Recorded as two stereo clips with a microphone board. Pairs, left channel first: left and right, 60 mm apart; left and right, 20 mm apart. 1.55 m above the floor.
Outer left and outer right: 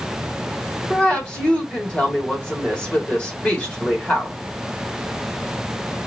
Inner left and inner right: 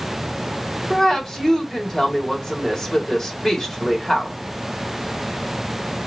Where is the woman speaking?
20° left (ahead or behind), 2 m.